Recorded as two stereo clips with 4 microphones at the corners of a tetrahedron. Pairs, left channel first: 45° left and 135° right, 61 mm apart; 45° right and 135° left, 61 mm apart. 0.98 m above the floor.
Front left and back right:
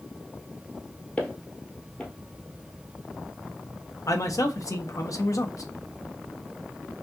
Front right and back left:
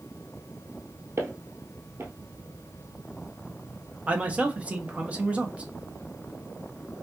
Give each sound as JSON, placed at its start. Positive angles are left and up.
{"t": 1.2, "sound": "footsteps", "azimuth_deg": 105, "distance_m": 1.4}
{"t": 4.1, "sound": "a man speaking", "azimuth_deg": 65, "distance_m": 0.8}